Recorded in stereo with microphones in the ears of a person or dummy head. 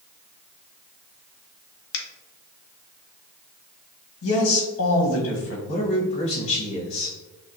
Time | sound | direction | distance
1.9 | a finger snap | 60° left (ahead or behind) | 0.9 m
4.2 | a man speaking | 75° left (ahead or behind) | 1.7 m
5.7 | a man speaking | 40° left (ahead or behind) | 1.4 m